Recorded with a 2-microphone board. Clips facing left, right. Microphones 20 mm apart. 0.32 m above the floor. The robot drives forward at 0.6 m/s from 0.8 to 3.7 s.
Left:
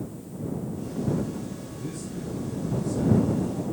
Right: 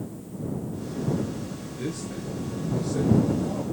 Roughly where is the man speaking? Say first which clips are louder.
Right 3 dB; right.